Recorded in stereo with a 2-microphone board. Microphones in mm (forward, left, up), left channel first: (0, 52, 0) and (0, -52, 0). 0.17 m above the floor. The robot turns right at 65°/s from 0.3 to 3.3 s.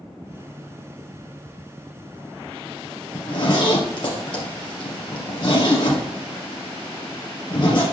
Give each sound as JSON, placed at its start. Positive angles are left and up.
{"t": 3.1, "sound": "a zipper", "side_deg": 40, "distance_m": 3.0}